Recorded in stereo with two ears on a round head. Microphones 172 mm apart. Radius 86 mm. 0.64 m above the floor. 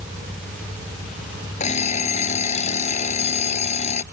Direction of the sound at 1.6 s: 40° left (ahead or behind).